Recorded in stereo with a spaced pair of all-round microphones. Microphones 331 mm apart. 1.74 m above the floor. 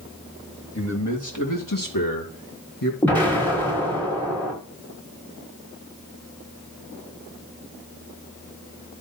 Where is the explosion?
5° left (ahead or behind), 6.5 m.